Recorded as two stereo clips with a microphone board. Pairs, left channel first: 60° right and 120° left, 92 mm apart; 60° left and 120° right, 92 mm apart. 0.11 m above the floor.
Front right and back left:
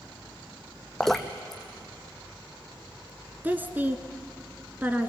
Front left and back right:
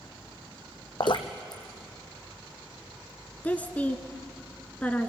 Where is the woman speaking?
100° left, 1.1 m.